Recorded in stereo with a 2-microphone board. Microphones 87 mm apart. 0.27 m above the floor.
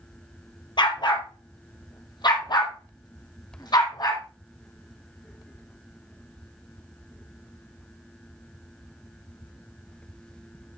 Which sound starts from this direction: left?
A dog barking, at 0.8 s.